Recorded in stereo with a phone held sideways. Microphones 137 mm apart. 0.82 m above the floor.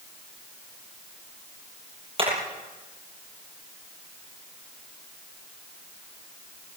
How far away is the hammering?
About 10 m.